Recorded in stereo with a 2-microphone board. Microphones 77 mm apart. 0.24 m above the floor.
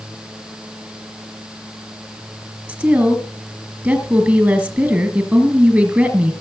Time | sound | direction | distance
2.7 | a woman speaking | 25° right (ahead or behind) | 3.5 m